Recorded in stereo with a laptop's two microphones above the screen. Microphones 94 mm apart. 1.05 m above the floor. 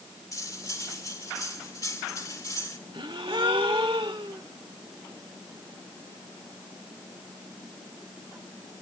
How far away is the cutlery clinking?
About 2 m.